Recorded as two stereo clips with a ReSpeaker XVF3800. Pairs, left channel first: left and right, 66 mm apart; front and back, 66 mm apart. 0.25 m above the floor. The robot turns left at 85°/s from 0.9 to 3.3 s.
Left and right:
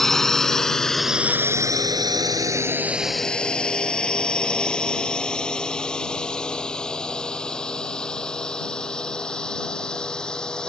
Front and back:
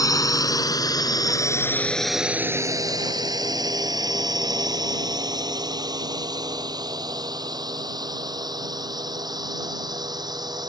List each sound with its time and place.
0.0 s a drone: 5° left; by 10.7 s 170° left